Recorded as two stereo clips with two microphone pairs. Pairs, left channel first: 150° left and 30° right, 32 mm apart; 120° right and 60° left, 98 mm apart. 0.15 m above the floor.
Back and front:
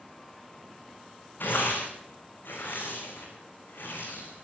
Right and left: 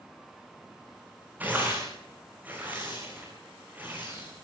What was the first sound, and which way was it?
Tearing paper, 135° left.